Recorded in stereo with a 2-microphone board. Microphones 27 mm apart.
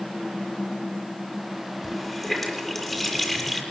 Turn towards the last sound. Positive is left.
turn(degrees=10)  # may be behind; listen again after turning